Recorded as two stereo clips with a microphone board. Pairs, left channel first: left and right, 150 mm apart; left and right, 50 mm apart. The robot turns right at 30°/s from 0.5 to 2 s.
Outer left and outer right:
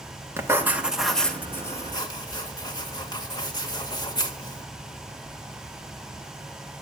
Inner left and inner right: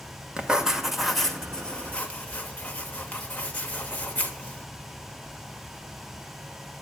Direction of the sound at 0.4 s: 15° right.